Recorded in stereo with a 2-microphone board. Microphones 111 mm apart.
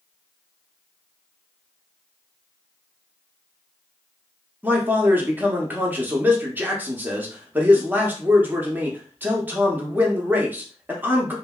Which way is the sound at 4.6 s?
15° right (ahead or behind).